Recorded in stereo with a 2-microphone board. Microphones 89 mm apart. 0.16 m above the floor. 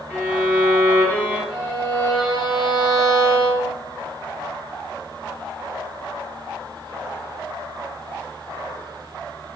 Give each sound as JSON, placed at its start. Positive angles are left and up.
{"t": 0.1, "sound": "a violin", "side_deg": 15, "distance_m": 2.0}
{"t": 1.5, "sound": "a violin", "side_deg": 60, "distance_m": 1.4}